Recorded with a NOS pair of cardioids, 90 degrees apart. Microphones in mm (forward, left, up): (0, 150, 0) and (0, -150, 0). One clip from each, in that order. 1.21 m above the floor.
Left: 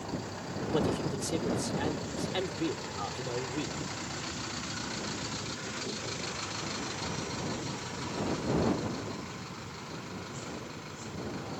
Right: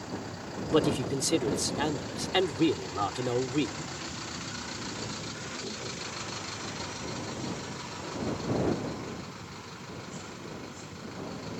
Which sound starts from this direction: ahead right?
A man speaking, at 0.7 s.